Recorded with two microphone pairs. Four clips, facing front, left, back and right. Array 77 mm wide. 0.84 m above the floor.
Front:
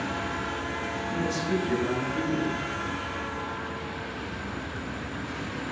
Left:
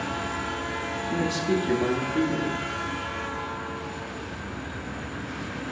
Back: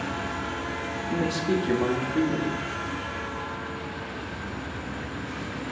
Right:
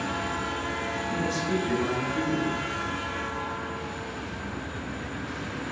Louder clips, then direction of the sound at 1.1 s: Left 4 dB, back 3 dB; 165° left.